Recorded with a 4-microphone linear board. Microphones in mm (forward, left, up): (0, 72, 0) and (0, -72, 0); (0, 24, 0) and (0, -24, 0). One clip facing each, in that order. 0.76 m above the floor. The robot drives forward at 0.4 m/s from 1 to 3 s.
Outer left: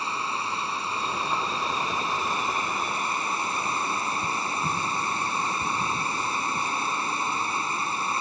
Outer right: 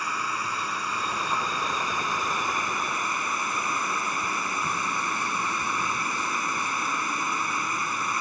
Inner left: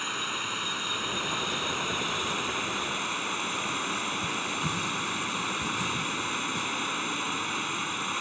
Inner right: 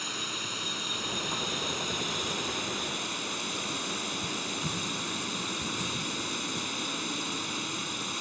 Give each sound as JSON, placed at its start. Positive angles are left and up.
{"t": 0.0, "sound": "running water", "side_deg": 25}